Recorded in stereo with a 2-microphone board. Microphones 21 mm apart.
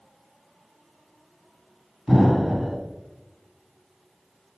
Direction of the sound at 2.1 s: 20° right (ahead or behind).